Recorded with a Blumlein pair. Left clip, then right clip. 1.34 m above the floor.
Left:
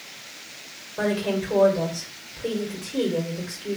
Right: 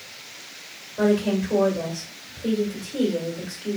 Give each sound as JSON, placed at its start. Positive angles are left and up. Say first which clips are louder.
{"t": 1.0, "sound": "a woman speaking", "louder": "right 3 dB", "azimuth_deg": 10, "distance_m": 1.6}